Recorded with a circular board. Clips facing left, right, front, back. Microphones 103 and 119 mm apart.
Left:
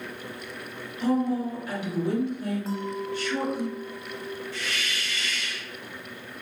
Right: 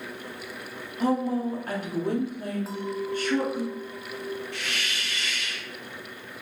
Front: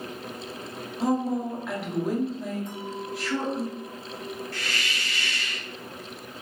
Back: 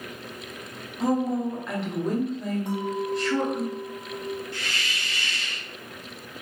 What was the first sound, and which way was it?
A woman speaking, 85° right.